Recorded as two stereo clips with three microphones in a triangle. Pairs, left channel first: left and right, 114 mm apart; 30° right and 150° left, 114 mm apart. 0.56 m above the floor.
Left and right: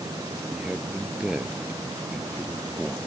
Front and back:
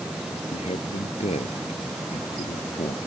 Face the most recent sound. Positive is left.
turn(degrees=-10)